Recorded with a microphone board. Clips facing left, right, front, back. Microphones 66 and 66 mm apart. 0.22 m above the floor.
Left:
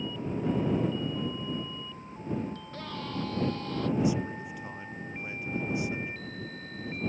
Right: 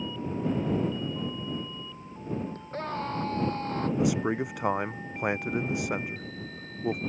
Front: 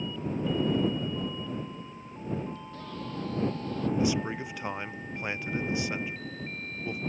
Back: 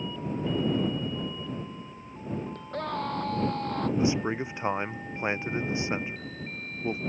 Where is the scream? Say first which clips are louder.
Right 6 dB, back 8 dB; 145° right.